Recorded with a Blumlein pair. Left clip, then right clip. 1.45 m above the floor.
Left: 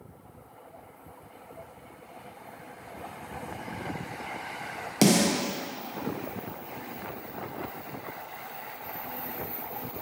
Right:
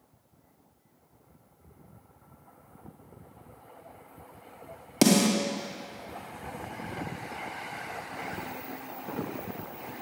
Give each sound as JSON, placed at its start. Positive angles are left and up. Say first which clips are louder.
{"t": 5.0, "sound": "a snare drum", "louder": "even", "azimuth_deg": -5, "distance_m": 0.9}